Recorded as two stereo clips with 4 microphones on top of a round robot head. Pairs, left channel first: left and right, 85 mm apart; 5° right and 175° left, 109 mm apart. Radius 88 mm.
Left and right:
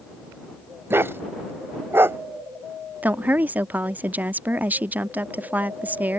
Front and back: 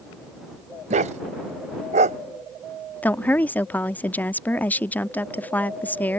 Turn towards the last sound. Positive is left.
turn(degrees=-55)